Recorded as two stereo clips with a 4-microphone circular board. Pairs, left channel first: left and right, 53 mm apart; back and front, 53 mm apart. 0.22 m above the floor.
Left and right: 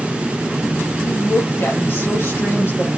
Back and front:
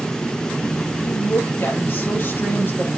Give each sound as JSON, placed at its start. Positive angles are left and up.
{"t": 1.0, "sound": "a woman speaking", "azimuth_deg": 130, "distance_m": 5.5}